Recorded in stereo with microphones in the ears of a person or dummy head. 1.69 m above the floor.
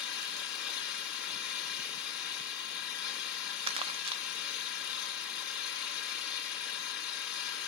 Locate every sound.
0.0 s an engine running: 65° left (ahead or behind), 2 m
3.7 s crumpling: 30° right (ahead or behind), 0.5 m